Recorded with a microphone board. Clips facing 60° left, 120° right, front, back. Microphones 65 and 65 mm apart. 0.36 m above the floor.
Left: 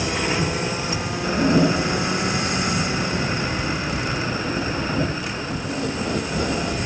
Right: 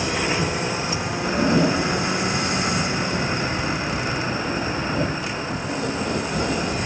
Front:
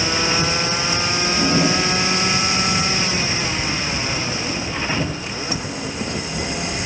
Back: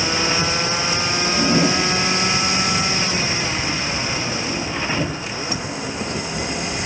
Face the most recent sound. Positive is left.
turn(degrees=125)